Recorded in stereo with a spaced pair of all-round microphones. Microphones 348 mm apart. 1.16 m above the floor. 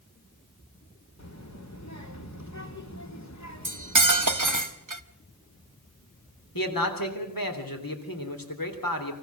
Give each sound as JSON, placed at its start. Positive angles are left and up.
{"t": 1.2, "sound": "a child speaking", "side_deg": 50, "distance_m": 2.5}
{"t": 3.6, "sound": "cutlery clinking", "side_deg": -60, "distance_m": 0.9}
{"t": 6.5, "sound": "a man speaking", "side_deg": 75, "distance_m": 3.5}